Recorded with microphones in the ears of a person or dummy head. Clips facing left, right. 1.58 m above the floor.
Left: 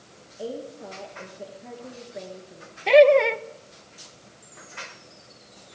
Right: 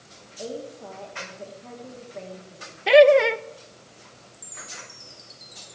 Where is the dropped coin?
No dropped coin in this recording.